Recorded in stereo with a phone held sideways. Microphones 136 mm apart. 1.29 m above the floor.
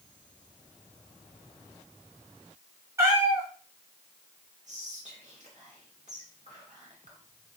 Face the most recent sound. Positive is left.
turn(degrees=-60)  # may be behind; listen again after turning